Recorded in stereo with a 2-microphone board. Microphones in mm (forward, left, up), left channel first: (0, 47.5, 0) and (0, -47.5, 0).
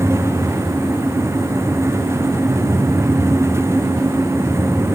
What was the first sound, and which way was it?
Only background noise.